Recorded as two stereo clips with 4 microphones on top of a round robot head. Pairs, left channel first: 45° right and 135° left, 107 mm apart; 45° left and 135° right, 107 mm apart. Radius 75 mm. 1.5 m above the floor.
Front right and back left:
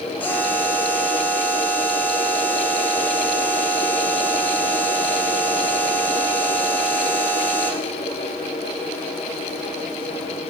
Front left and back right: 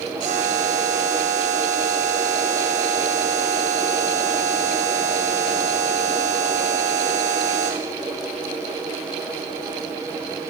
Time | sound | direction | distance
0.2 | a buzzer | 120° right | 5 m